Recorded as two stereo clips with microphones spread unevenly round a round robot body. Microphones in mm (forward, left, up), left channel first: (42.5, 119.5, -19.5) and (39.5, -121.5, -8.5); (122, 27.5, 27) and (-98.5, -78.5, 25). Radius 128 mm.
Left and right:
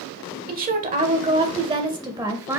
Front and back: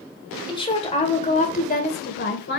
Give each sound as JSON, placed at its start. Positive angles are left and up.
{"t": 0.5, "sound": "a woman speaking", "azimuth_deg": -45, "distance_m": 2.0}